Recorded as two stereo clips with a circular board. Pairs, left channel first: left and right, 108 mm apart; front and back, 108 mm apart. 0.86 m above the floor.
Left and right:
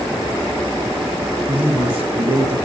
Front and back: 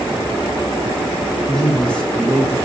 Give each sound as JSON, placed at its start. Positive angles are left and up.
{"t": 1.5, "sound": "a man speaking", "azimuth_deg": -80, "distance_m": 1.2}